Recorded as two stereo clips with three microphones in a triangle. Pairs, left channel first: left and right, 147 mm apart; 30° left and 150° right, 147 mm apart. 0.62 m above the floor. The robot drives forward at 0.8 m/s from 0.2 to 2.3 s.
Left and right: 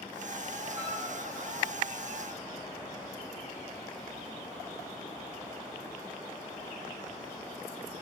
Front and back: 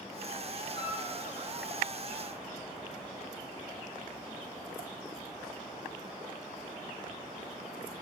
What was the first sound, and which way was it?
A flute, 25° right.